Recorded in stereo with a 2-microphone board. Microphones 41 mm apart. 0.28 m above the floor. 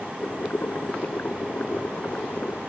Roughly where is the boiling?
Left.